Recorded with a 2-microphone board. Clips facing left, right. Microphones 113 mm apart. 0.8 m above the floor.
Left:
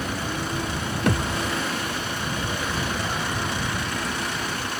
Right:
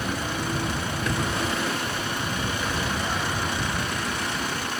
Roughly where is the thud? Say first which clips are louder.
Left 4 dB; left.